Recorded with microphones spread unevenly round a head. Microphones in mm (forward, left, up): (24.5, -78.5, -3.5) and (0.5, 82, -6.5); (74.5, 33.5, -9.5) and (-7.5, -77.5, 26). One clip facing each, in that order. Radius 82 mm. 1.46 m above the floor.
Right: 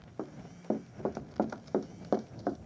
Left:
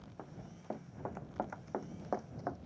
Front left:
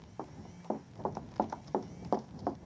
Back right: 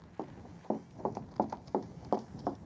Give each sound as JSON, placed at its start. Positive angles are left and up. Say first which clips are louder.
{"t": 0.2, "sound": "running footsteps", "louder": "right 10 dB, back right 2 dB", "azimuth_deg": -55}